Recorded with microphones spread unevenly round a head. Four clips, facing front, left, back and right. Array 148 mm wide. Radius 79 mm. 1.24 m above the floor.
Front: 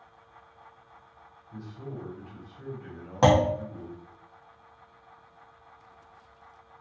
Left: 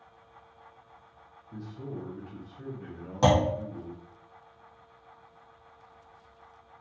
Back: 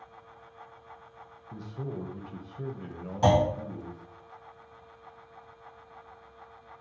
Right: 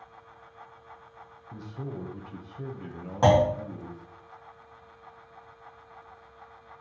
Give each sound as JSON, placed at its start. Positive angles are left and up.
{"t": 1.5, "sound": "a man speaking", "azimuth_deg": -150, "distance_m": 0.6}
{"t": 3.2, "sound": "a clunk", "azimuth_deg": -15, "distance_m": 1.0}